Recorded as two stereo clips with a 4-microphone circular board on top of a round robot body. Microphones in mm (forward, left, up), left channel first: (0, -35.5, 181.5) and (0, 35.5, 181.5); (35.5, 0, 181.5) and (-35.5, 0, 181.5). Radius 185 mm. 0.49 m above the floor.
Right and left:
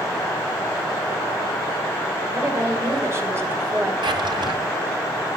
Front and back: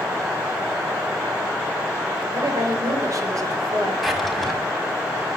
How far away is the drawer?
About 1.5 m.